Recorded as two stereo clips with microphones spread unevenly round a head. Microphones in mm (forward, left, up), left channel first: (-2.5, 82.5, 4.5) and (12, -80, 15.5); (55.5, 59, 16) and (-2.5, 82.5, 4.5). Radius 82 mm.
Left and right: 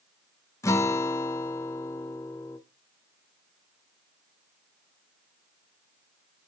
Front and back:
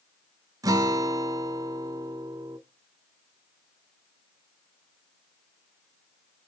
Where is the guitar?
165° left, 0.7 m.